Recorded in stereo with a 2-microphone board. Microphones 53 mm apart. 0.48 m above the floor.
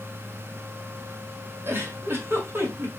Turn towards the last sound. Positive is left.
turn(degrees=-50)  # may be behind; listen again after turning